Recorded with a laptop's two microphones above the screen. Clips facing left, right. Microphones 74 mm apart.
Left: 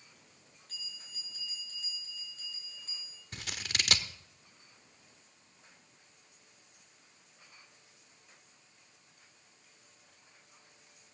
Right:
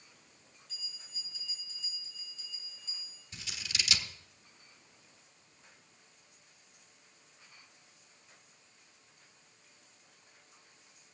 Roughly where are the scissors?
Left.